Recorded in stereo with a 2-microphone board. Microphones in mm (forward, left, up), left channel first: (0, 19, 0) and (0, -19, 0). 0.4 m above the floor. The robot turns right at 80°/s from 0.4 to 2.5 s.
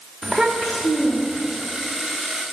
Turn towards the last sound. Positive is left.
turn(degrees=165)